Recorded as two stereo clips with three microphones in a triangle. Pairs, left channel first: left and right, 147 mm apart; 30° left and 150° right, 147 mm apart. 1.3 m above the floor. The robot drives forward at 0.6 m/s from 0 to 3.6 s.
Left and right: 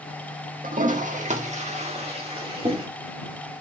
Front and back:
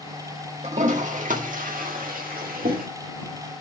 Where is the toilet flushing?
110° right, 1.5 m; by 2.9 s 145° right, 2.5 m.